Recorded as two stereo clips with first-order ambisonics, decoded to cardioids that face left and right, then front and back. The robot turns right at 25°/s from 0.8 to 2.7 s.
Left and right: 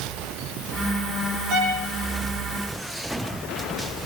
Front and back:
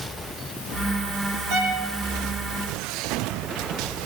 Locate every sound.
1.5 s a violin: 135° right, 6.5 m; by 1.9 s 125° right, 6.5 m